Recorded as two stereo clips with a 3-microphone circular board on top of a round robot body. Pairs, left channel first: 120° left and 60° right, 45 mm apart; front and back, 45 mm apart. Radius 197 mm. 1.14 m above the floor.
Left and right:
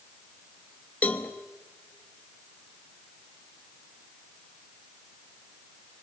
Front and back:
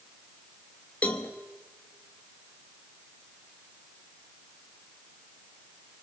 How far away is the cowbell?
About 1.1 m.